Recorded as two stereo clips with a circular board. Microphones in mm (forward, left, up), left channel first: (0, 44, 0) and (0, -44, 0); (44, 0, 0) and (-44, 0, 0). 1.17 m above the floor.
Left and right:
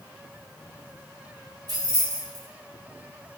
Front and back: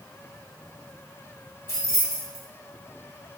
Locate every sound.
1.7 s keys jangling: 50° right, 1.5 m